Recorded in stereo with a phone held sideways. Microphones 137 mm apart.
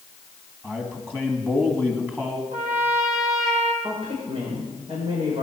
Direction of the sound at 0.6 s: 15° right (ahead or behind).